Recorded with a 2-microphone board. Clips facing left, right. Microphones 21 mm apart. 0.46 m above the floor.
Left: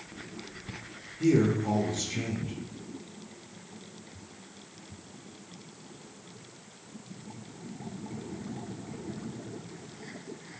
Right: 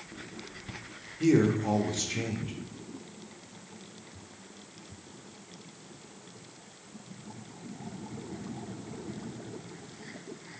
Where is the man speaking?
20° right (ahead or behind), 0.7 m.